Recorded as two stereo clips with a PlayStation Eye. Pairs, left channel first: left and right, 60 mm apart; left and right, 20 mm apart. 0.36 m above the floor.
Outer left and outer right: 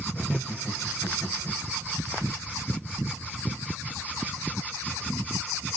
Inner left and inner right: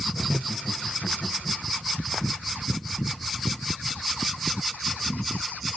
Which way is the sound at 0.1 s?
Centre (ahead or behind).